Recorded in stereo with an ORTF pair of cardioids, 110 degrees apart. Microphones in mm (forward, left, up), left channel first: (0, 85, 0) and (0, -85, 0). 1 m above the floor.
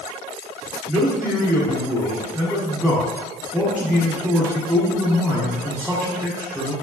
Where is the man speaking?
5° right, 1.2 m.